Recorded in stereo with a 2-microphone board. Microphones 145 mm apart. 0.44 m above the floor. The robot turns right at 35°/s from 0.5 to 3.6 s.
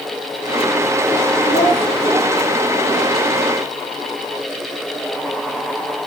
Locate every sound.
1.5 s a child speaking: 40° left (ahead or behind), 4 m; by 1.8 s 25° left (ahead or behind), 4 m